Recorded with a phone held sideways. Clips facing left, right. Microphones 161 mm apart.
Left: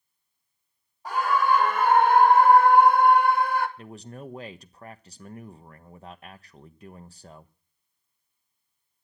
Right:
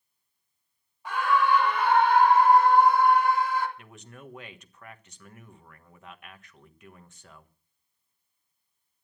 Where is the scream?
40° left (ahead or behind), 1.8 m; by 3.7 s 60° left (ahead or behind), 3 m.